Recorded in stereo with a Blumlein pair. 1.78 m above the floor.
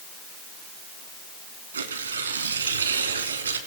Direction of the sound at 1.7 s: 65° right.